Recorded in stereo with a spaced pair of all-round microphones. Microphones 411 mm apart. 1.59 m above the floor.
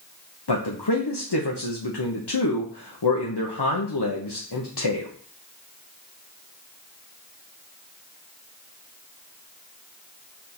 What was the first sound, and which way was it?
A man speaking, 80° left.